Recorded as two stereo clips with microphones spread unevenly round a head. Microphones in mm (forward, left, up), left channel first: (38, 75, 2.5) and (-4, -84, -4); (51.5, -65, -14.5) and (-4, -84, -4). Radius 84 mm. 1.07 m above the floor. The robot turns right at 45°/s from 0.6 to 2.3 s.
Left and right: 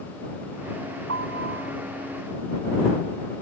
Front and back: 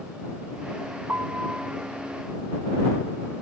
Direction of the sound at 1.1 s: 115° right.